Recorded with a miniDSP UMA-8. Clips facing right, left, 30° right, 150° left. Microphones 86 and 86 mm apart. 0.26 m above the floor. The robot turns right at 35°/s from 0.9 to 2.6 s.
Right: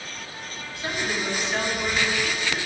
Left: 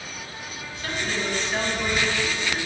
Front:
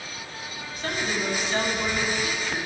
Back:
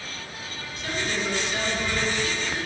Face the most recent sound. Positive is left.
turn(degrees=35)